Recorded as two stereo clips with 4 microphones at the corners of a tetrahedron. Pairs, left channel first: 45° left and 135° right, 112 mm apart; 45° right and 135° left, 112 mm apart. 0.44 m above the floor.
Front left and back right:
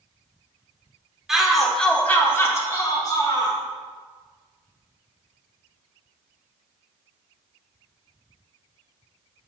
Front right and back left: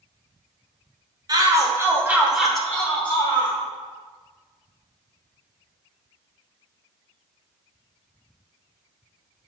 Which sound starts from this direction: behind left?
A shout, at 1.3 s.